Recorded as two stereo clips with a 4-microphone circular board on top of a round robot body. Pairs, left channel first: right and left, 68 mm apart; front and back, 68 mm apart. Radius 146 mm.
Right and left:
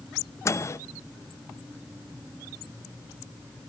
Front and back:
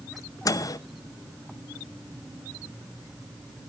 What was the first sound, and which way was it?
A microwave, 40° right.